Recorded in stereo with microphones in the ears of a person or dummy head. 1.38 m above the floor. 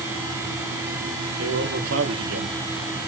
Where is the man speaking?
65° right (ahead or behind), 3.5 m; by 3.1 s 80° right, 1.6 m.